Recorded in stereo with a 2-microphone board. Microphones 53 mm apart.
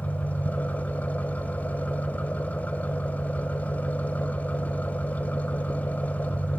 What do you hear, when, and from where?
0.0 s an engine running: 30° left (ahead or behind), 1.2 m